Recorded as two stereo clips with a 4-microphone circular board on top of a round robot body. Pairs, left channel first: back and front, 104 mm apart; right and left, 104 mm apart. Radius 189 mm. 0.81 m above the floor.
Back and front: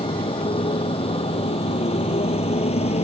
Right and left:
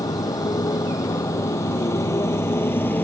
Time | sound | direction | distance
0.0 | a motorcycle | 145° right | ?